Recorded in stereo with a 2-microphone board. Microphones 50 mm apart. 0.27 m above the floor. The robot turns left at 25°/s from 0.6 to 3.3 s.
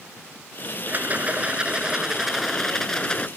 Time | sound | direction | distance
0.9 | a rattle | 140° right | ?